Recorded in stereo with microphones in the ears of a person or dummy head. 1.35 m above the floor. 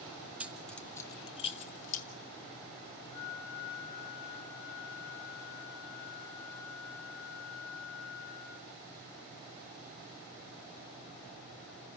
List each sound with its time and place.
0.4 s keys jangling: 10° right (ahead or behind), 0.8 m; by 2.0 s 45° left (ahead or behind), 1.3 m
3.1 s a flute: 55° left (ahead or behind), 3.5 m